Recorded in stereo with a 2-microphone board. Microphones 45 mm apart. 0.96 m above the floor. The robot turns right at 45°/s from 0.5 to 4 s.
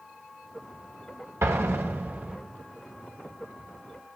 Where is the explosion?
70° right, 1.5 m; by 2.4 s 25° right, 1.5 m.